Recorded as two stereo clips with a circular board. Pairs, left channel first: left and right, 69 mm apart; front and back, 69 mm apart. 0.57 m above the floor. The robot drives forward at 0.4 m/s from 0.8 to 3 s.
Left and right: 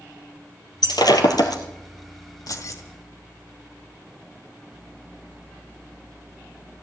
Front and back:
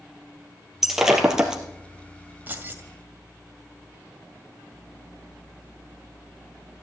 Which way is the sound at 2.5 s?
120° left.